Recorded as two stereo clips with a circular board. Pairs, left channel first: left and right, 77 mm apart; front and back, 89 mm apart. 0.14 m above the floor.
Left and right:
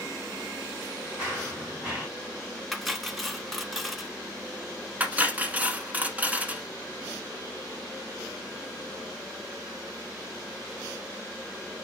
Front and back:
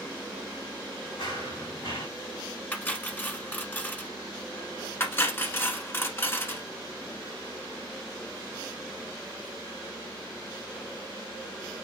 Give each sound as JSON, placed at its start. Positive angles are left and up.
{"t": 1.2, "sound": "running footsteps", "azimuth_deg": -15, "distance_m": 4.5}
{"t": 2.7, "sound": "cutlery clinking", "azimuth_deg": 5, "distance_m": 0.7}
{"t": 5.0, "sound": "cutlery clinking", "azimuth_deg": -40, "distance_m": 0.8}